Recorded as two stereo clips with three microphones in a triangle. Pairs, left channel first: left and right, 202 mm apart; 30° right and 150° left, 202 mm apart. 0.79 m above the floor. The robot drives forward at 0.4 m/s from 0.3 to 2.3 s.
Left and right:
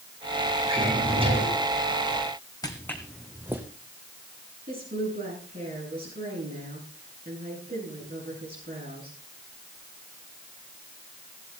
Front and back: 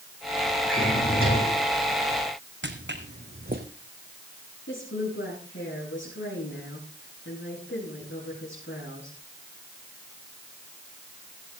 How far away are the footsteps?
About 2 m.